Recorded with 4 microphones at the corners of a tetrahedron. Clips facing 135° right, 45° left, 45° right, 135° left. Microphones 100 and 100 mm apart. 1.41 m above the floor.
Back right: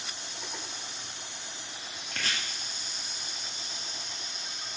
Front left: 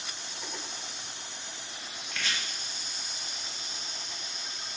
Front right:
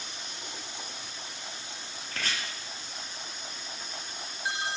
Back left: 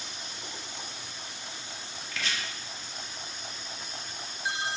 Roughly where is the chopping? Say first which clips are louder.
Even, even; right.